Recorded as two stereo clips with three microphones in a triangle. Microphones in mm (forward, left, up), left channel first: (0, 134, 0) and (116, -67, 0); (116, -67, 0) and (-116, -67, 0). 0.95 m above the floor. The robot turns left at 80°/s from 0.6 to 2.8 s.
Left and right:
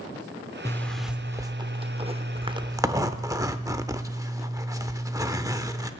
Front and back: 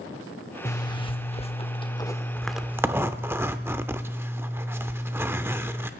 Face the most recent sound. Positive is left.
turn(degrees=-115)